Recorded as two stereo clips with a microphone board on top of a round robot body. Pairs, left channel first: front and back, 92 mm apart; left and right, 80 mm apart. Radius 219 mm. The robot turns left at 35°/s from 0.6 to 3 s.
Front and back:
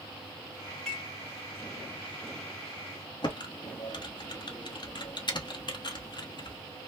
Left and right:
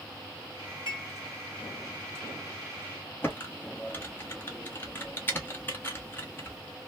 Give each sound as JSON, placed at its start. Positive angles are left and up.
{"t": 0.9, "sound": "dishes clattering", "azimuth_deg": 85, "distance_m": 1.6}
{"t": 3.2, "sound": "typing on a keyboard", "azimuth_deg": 30, "distance_m": 1.0}